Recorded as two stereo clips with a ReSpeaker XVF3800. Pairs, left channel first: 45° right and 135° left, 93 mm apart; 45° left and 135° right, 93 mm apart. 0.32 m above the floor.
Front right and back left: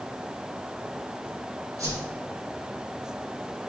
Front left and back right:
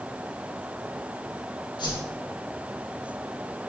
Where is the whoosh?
80° left, 5 m.